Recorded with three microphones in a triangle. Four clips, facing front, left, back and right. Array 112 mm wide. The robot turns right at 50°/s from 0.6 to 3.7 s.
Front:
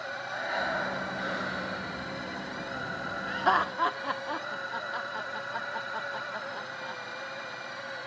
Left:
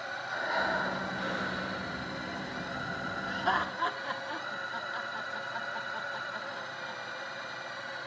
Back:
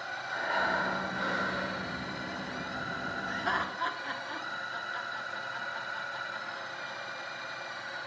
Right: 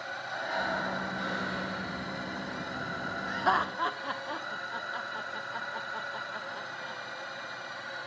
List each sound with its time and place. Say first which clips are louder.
0.3 s breathing: left 2 dB, back 1 dB; 135° left, 3.5 m; by 1.9 s 160° right, 3.5 m
3.3 s laughter: right 3 dB, front 8 dB; 50° right, 1.1 m; by 7.0 s 25° right, 1.1 m